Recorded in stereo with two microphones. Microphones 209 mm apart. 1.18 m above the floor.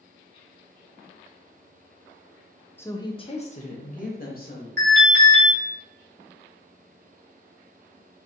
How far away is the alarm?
About 1.9 m.